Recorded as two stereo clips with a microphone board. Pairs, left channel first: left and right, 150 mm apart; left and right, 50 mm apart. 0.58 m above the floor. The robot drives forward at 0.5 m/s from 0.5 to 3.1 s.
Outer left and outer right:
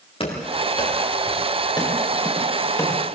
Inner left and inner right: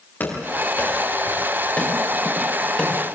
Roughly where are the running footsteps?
Left.